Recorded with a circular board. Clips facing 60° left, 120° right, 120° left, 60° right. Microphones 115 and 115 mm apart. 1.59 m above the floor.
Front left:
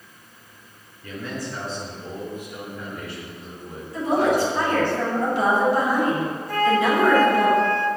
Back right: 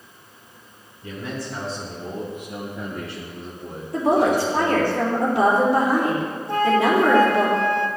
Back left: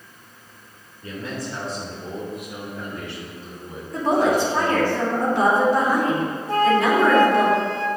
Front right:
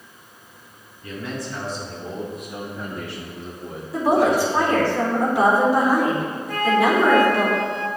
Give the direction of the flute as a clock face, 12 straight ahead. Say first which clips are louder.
Back right 2 dB, back left 1 dB; 6 o'clock.